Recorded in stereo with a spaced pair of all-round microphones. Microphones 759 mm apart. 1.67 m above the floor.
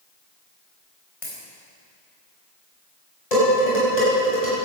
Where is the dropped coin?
75° left (ahead or behind), 4 m.